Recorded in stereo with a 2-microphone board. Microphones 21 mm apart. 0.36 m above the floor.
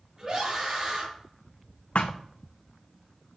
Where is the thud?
70° left (ahead or behind), 1.1 m.